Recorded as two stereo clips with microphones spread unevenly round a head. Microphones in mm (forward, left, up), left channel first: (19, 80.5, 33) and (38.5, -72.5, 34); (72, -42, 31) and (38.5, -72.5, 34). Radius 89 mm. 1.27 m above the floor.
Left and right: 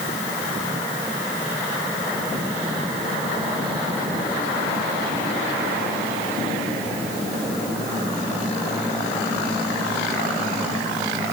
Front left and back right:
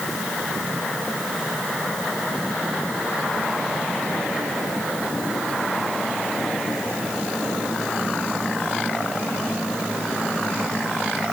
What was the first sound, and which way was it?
Only background noise.